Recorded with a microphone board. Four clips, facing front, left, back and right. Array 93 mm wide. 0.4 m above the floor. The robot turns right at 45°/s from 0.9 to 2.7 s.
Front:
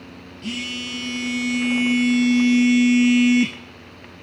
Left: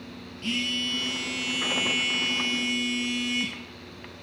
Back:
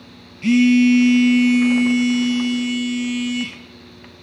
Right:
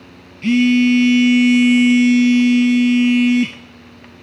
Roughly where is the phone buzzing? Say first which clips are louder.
Right 20 dB, back 19 dB; behind right.